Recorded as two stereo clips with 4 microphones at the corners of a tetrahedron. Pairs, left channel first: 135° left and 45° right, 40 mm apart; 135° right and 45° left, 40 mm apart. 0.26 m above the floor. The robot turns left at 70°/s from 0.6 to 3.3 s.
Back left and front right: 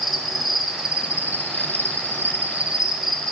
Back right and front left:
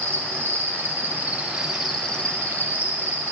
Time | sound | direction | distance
0.0 | an insect | 40° left | 0.9 m